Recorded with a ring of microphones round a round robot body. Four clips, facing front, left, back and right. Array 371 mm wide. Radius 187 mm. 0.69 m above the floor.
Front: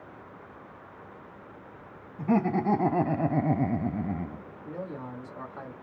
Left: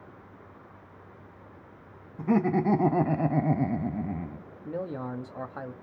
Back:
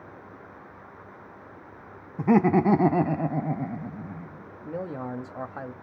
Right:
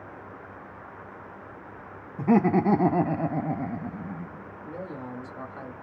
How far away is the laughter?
About 0.7 m.